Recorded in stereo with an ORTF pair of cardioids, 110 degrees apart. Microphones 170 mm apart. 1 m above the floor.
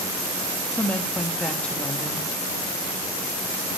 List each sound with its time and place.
0.7 s a woman speaking: 5° left, 1.1 m